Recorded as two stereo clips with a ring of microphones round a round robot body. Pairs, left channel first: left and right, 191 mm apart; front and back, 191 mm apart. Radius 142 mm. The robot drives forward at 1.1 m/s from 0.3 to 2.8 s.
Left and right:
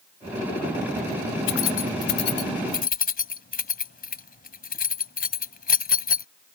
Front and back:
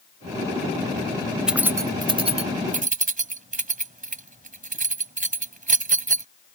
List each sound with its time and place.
1.5 s keys jangling: 95° left; by 6.2 s 130° left